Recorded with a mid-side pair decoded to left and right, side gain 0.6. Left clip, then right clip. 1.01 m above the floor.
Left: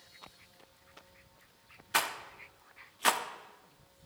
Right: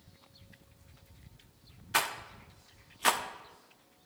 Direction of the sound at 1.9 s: Straight ahead.